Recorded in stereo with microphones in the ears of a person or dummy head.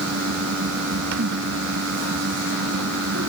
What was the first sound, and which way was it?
A fan, 70° right (ahead or behind).